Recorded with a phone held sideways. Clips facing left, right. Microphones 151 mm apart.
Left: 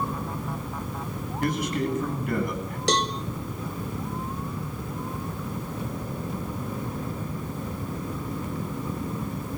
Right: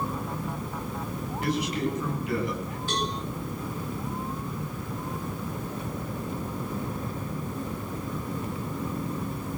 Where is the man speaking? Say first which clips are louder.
Left 2 dB; 45° left (ahead or behind), 9.5 m.